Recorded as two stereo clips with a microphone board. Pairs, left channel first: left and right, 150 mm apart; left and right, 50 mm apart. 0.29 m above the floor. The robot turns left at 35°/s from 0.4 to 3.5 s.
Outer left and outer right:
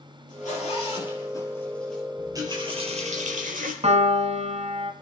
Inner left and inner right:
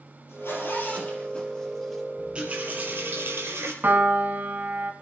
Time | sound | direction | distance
0.3 | a zipper | 55° left (ahead or behind) | 5 m
2.2 | a running tap | 20° right | 4 m
3.8 | a piano | 45° right (ahead or behind) | 1.4 m